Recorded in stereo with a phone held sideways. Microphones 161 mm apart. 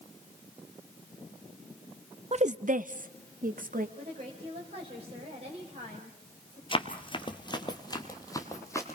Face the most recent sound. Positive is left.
turn(degrees=15)  # may be behind; listen again after turning